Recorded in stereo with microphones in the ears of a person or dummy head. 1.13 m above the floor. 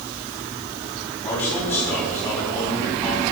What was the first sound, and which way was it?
A man speaking, 15° left (ahead or behind).